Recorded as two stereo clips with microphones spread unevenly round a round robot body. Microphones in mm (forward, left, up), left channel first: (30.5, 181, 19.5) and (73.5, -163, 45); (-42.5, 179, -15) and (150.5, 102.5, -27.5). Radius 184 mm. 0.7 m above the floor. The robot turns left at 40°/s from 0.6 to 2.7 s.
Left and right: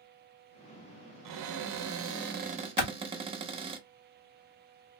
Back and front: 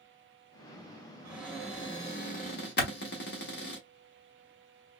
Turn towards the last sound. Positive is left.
turn(degrees=120)